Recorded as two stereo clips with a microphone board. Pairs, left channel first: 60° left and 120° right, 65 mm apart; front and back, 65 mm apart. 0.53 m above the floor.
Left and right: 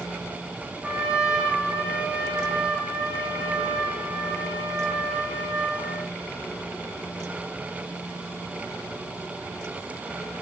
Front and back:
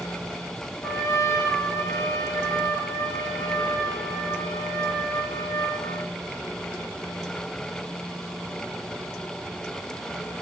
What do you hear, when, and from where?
0.8 s a trumpet: 40° right, 8 m